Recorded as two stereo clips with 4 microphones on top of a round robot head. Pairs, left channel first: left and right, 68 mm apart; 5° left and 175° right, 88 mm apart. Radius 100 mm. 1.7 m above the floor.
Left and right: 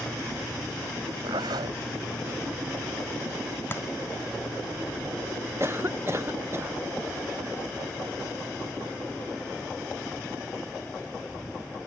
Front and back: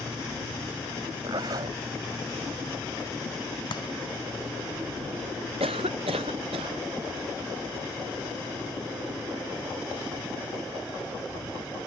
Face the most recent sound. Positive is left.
turn(degrees=-155)